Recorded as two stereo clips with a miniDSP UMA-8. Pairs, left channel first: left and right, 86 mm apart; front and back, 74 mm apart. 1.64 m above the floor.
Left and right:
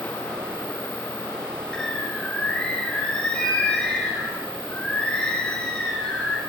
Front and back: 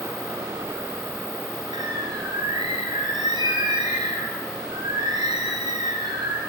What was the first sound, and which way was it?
A bird, 170° left.